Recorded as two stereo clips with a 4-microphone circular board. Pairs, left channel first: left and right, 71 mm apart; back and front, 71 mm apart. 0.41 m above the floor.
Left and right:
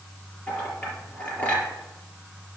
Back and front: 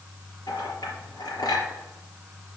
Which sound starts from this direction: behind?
A clink, at 0.5 s.